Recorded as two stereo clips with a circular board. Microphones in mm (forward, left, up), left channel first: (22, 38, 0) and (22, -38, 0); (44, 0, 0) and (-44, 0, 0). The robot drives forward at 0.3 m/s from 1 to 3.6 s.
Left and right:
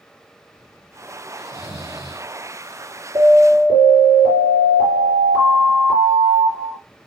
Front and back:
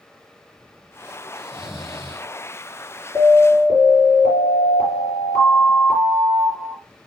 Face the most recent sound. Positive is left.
turn(degrees=150)